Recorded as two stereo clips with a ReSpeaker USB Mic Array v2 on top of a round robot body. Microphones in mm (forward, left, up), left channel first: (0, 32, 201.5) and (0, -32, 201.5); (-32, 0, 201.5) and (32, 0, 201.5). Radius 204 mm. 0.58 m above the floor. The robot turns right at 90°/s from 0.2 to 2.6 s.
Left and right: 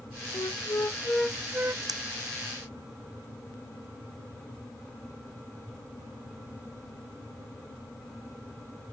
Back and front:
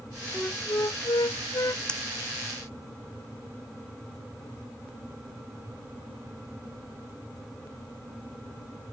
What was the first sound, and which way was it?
A flute, 100° left.